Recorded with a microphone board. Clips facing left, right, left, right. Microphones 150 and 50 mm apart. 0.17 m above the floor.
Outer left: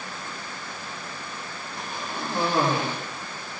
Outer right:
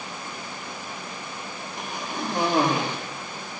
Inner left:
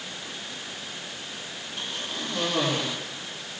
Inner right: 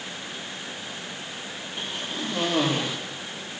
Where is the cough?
20° right (ahead or behind), 5.5 m.